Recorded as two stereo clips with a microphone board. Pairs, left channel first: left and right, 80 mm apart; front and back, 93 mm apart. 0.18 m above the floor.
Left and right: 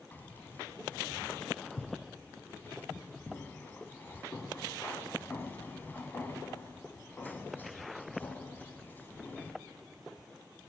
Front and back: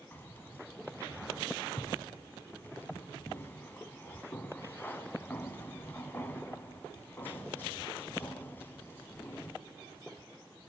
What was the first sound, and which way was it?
Keys jangling, 45° left.